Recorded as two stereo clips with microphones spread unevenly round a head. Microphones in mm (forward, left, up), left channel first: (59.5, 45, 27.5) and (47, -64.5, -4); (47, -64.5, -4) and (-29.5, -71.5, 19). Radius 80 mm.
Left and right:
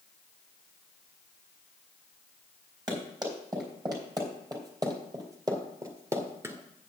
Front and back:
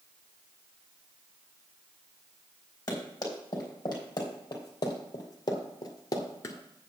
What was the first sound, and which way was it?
Running footsteps, 40° right.